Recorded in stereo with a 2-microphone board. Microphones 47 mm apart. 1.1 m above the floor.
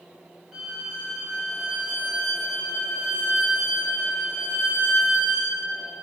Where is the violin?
5° right (ahead or behind), 0.9 m.